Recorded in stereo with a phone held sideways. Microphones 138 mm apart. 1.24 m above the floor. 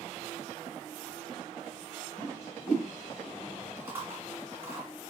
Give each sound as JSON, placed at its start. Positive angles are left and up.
{"t": 2.2, "sound": "a whoosh", "side_deg": 20, "distance_m": 0.9}
{"t": 3.8, "sound": "chewing", "side_deg": -15, "distance_m": 1.1}